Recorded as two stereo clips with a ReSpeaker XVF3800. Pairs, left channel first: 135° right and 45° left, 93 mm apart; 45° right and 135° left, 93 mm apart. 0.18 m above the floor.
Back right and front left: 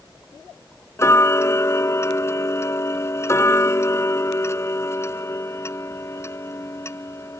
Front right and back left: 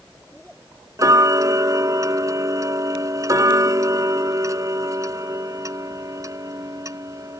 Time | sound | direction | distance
1.0 | ticking | 175° left | ?